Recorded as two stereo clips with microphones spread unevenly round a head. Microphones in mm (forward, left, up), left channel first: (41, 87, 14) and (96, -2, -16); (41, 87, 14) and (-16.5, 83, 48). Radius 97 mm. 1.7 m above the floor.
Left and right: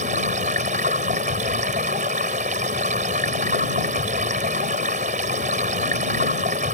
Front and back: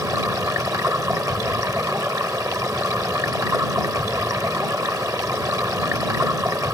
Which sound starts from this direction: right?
Running water, at 0.0 s.